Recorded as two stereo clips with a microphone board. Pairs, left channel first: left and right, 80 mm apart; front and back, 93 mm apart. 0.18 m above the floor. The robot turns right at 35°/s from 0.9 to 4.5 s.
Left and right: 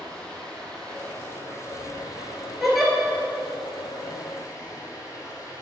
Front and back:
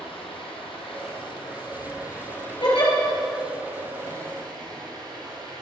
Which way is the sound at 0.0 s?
10° left.